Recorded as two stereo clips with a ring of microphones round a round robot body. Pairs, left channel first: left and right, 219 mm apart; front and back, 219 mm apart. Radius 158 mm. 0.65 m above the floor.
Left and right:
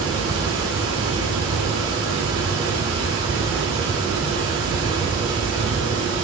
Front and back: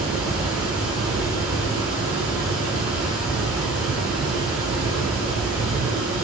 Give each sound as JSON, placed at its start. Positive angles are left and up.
{"t": 0.0, "sound": "running water", "azimuth_deg": -100, "distance_m": 2.0}